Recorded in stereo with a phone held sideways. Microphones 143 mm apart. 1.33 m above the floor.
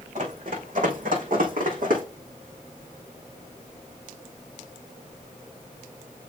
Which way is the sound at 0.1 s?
65° right (ahead or behind).